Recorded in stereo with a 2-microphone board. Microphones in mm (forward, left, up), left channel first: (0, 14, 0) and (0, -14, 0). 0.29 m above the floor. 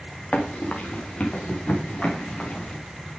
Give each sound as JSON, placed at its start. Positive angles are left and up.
{"t": 0.3, "sound": "running footsteps", "side_deg": 60, "distance_m": 2.5}